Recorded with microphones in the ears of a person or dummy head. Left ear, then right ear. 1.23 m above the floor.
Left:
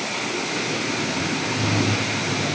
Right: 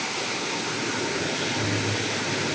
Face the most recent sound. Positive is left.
No sound to turn to.